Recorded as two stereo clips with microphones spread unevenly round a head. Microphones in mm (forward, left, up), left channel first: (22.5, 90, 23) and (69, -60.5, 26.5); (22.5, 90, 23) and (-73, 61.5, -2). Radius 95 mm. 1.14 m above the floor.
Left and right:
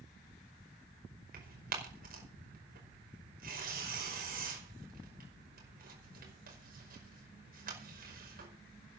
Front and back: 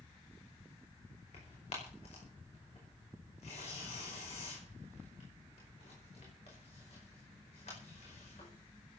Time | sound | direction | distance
1.3 | tearing paper | 45° right | 5 m